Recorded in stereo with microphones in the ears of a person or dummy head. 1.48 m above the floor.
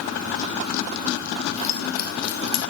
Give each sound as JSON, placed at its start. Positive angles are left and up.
{"t": 1.6, "sound": "keys jangling", "side_deg": 35, "distance_m": 1.6}